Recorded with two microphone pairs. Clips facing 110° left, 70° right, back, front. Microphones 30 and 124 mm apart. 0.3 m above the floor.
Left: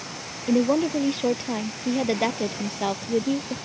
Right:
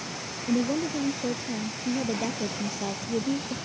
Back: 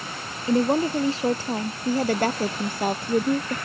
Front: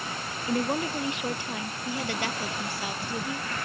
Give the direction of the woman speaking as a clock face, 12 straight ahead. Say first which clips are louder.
Left 6 dB, back 7 dB; 8 o'clock.